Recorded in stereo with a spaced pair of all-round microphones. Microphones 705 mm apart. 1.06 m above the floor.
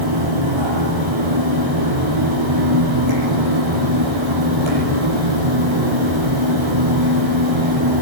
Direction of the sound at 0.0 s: 40° right (ahead or behind).